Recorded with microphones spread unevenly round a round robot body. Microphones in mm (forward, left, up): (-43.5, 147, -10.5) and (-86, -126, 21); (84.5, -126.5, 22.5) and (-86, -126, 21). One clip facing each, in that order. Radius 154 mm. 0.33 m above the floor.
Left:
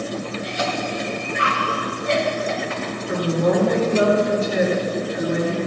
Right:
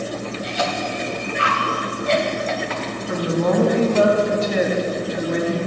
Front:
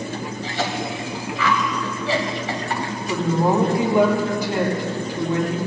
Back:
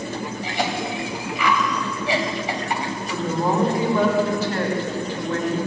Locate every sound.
0.4 s a cough: 105° right, 1.9 m
3.1 s a woman speaking: 75° right, 3 m